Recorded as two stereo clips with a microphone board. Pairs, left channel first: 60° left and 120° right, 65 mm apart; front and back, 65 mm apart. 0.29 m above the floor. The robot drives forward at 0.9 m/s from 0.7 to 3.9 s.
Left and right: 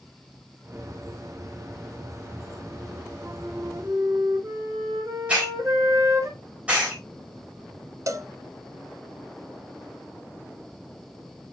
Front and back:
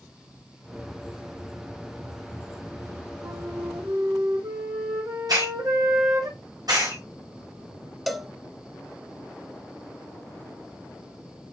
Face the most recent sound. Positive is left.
turn(degrees=-90)